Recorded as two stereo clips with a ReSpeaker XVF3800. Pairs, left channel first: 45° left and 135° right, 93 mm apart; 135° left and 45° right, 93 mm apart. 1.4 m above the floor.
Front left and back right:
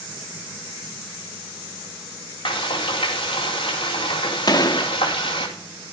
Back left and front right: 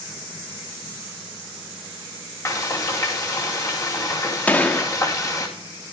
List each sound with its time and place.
2.5 s frying: 80° left, 4.5 m
4.5 s a gunshot: 65° left, 1.1 m